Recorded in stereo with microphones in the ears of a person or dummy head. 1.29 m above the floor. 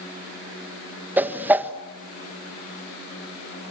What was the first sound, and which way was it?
A whoosh, 10° right (ahead or behind).